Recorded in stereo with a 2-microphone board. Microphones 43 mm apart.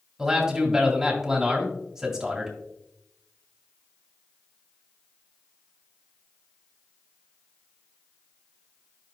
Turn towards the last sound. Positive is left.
turn(degrees=-10)  # may be behind; listen again after turning